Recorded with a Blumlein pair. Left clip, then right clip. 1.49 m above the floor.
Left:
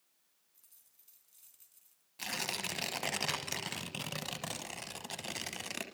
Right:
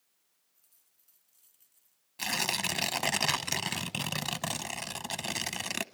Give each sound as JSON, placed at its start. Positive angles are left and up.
{"t": 0.5, "sound": "a dropped coin", "azimuth_deg": 40, "distance_m": 4.0}
{"t": 2.2, "sound": "tearing paper", "azimuth_deg": -15, "distance_m": 1.1}